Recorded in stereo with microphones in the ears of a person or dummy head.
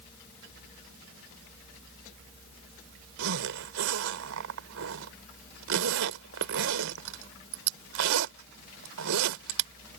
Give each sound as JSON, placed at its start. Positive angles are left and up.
{"t": 3.2, "sound": "a zipper", "side_deg": -75}